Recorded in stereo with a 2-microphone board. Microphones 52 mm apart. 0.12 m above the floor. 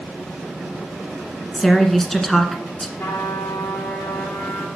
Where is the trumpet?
60° left (ahead or behind), 6 m.